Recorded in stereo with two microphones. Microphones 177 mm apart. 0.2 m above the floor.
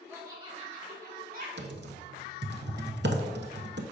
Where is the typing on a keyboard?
65° right (ahead or behind), 0.6 m.